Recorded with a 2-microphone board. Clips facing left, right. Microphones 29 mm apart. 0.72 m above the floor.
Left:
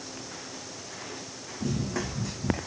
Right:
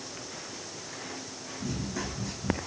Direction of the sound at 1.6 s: 60° left (ahead or behind).